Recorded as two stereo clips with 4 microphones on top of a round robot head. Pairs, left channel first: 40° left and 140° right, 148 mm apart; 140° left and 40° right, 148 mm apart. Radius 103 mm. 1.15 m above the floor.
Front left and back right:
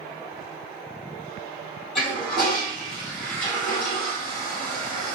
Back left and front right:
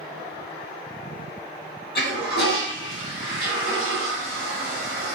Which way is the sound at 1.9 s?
125° left.